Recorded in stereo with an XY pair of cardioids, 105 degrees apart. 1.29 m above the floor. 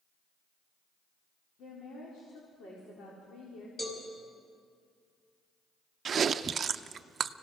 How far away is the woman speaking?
About 4 m.